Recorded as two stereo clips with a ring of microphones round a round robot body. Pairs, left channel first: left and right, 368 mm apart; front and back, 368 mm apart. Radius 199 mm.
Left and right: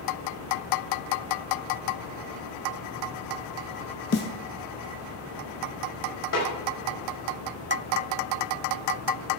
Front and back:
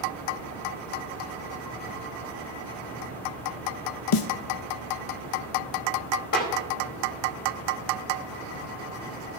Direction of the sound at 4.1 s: 25° left.